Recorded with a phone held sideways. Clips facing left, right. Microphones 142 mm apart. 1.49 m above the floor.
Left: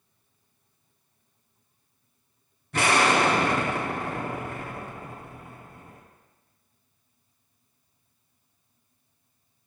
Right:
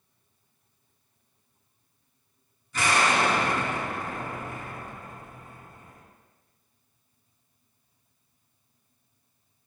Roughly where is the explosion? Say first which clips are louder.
Left 3 dB; left.